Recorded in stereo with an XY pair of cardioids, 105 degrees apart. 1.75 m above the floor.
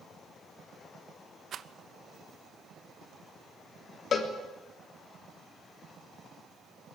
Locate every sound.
1.5 s a rattle: 55° right, 1.1 m
4.1 s a cowbell: 55° left, 3 m